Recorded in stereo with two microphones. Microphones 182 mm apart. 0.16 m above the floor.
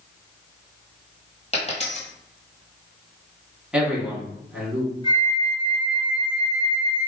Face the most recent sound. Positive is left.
turn(degrees=25)  # may be behind; listen again after turning